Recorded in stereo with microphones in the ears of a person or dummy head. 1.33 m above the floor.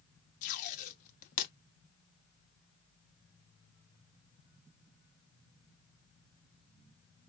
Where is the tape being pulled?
50° left (ahead or behind), 0.6 m.